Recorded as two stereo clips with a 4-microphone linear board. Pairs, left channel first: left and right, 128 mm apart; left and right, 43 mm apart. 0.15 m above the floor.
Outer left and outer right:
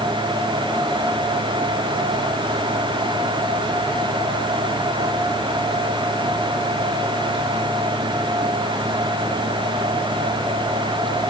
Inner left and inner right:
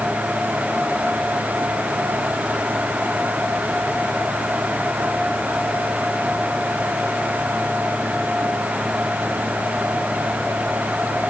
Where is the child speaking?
No child speaking in this recording.